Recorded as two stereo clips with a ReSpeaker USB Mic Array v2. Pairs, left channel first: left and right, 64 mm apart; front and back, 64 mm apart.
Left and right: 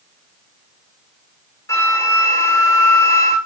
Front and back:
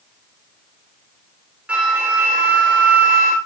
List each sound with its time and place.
1.7 s a flute: 110° left, 1.0 m